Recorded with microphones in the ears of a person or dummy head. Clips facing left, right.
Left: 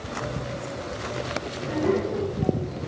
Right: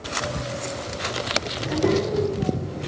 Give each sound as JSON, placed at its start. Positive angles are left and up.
{"t": 1.6, "sound": "a child speaking", "side_deg": -55, "distance_m": 6.0}